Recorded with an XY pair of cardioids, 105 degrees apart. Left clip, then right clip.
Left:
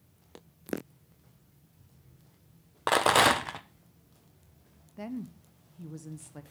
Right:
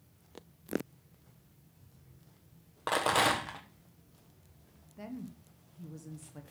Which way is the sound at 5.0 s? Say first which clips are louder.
Left 5 dB; 30° left.